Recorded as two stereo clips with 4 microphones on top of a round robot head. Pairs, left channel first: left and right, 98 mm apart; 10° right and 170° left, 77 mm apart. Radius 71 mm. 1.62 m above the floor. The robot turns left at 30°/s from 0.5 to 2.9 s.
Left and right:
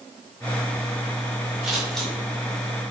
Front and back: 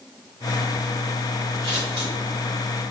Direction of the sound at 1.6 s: 175° right.